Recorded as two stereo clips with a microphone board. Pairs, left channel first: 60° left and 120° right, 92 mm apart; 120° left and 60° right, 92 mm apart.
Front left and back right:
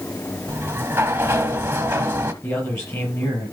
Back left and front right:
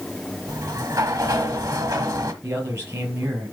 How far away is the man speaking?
About 4.5 m.